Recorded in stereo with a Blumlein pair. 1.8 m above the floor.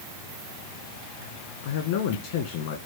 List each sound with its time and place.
1.6 s a man speaking: 50° left, 1.5 m